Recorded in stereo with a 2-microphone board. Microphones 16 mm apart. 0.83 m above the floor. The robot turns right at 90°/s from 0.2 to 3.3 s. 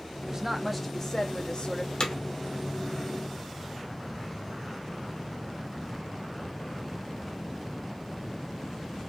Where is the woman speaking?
40° right, 1.0 m; by 1.9 s 110° left, 1.0 m.